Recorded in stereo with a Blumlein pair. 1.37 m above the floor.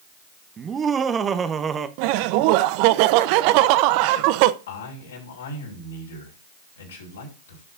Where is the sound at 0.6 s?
20° right, 1.1 m.